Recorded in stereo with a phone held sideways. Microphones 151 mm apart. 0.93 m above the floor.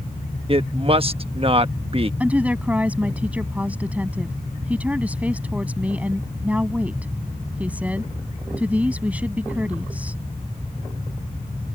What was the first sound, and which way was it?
A woman speaking, 40° right (ahead or behind).